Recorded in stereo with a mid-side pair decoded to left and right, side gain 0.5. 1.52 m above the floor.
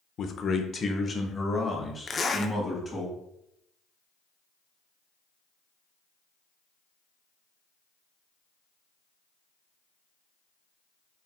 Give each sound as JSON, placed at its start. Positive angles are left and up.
{"t": 0.2, "sound": "a man speaking", "azimuth_deg": 50, "distance_m": 0.6}
{"t": 2.1, "sound": "a zipper", "azimuth_deg": 30, "distance_m": 0.6}